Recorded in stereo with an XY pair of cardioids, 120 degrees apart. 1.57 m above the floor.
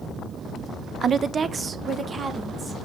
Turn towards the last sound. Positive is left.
turn(degrees=-25)